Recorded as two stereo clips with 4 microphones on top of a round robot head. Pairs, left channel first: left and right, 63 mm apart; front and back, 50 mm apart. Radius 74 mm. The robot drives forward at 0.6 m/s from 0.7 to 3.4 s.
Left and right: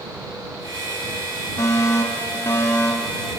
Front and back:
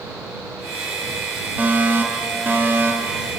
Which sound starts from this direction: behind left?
A fire alarm, at 1.6 s.